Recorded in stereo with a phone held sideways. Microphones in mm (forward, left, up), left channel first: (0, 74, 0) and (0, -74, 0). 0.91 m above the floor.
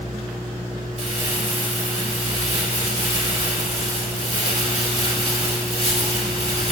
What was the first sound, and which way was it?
Crumpling, 40° right (ahead or behind).